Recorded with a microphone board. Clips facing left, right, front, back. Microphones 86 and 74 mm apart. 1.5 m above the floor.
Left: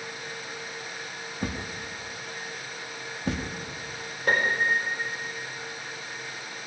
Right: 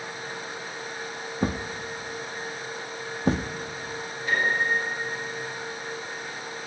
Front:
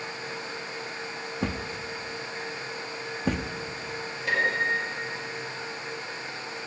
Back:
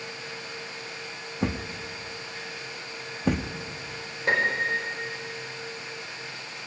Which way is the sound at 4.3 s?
120° left.